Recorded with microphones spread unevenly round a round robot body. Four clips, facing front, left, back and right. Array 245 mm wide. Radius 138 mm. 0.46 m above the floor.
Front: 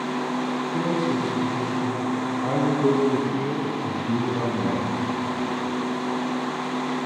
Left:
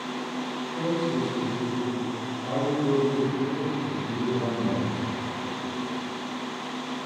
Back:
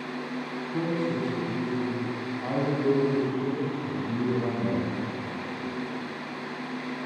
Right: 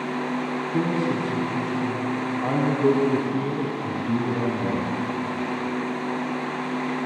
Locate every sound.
0.7 s a man speaking: 85° right, 4.5 m; by 5.0 s 25° right, 5 m